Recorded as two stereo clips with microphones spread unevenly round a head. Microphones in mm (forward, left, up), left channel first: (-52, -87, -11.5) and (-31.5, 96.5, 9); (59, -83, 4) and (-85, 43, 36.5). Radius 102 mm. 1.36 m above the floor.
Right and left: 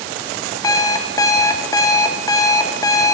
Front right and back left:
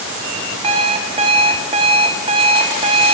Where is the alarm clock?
170° right, 0.9 m.